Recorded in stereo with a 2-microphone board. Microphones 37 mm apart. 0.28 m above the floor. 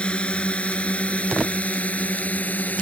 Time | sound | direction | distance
0.0 | a drone | 30° left (ahead or behind) | ?